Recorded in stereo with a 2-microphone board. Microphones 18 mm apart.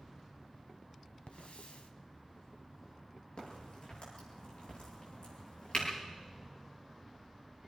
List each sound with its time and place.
1.3 s a hiss: 70° left (ahead or behind), 1.7 m
3.4 s a crack: 80° left, 9.5 m